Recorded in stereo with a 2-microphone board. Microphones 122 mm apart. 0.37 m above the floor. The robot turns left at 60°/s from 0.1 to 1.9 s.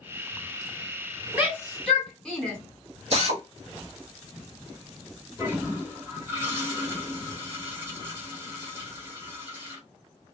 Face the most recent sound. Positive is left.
turn(degrees=-20)  # may be behind; listen again after turning